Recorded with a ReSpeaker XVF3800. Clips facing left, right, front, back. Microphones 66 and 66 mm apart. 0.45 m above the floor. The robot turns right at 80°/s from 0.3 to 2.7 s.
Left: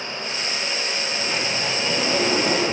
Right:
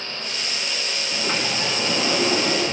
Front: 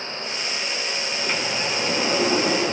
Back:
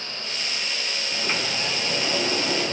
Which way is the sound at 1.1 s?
110° right.